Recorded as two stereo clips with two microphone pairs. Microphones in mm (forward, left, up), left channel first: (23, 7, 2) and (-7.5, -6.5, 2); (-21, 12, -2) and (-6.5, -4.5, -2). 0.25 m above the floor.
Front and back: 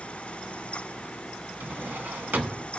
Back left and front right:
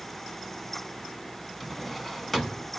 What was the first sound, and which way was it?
A drawer, 160° right.